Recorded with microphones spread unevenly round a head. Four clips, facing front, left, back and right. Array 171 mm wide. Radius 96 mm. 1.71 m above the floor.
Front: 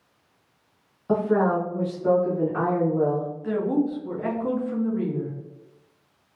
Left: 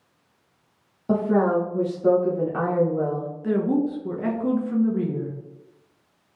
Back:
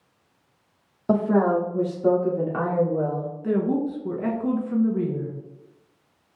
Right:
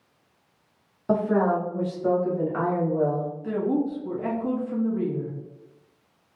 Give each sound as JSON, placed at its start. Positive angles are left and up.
{"t": 1.1, "sound": "a woman speaking", "azimuth_deg": 180, "distance_m": 1.1}
{"t": 3.4, "sound": "a woman speaking", "azimuth_deg": 130, "distance_m": 1.6}